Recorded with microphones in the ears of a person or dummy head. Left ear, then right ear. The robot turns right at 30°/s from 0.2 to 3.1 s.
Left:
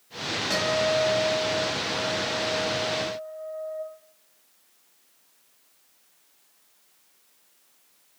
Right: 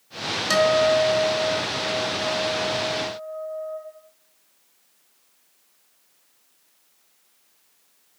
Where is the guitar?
100° right, 0.7 m; by 3.8 s 20° right, 0.7 m.